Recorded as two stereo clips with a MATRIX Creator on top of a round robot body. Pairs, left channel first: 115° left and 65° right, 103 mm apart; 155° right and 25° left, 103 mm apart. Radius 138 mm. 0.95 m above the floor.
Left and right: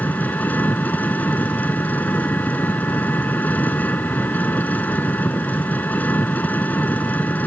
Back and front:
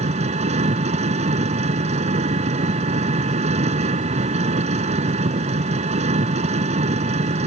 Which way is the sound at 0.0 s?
35° left.